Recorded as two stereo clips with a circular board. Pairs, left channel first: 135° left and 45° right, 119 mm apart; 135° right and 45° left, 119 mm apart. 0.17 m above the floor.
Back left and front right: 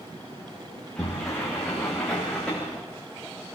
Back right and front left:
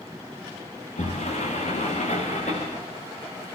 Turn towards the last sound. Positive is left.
turn(degrees=-140)